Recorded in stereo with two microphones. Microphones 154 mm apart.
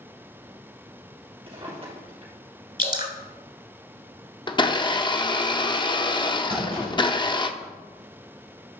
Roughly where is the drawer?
Right.